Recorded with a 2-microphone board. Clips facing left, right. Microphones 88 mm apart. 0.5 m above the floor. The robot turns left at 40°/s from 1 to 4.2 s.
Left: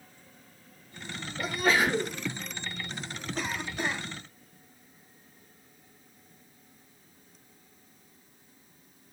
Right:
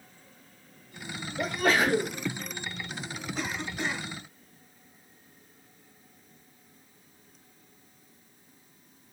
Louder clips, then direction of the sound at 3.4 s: Left 1 dB; centre (ahead or behind).